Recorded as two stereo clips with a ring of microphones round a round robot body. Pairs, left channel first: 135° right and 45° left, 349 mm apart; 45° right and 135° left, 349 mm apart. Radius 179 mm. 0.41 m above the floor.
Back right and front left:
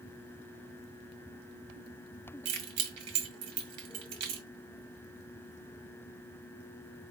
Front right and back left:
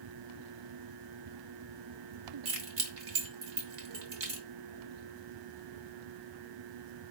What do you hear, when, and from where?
2.5 s keys jangling: 85° left, 1.3 m